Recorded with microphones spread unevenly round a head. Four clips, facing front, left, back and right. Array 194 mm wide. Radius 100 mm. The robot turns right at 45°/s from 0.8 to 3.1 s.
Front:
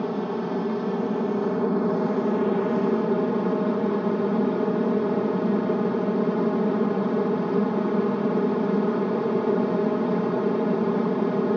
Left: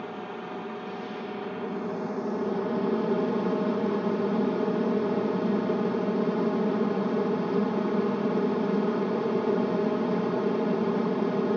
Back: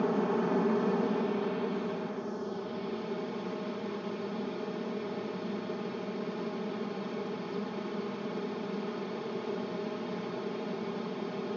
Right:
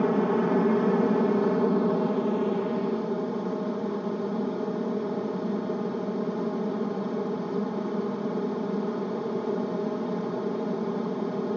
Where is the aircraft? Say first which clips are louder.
Right 13 dB, front 2 dB; 85° right; by 11.6 s 20° left.